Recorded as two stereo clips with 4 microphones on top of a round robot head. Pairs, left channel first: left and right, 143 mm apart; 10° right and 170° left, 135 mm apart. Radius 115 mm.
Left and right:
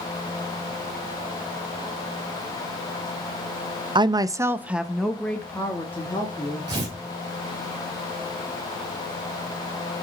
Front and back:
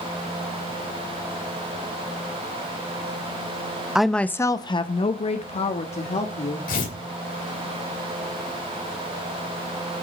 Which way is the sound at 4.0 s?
105° right.